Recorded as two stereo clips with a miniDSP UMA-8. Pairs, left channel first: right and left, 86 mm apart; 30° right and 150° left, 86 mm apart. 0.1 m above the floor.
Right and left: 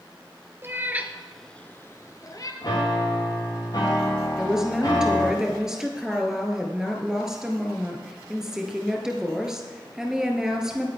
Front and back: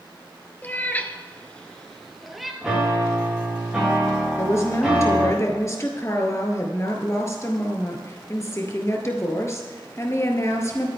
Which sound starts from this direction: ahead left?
A cat meowing, at 0.6 s.